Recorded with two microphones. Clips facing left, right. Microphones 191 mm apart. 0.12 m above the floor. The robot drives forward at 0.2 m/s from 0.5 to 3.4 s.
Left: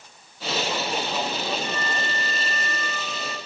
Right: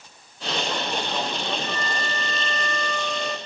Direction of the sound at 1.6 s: 25° right (ahead or behind).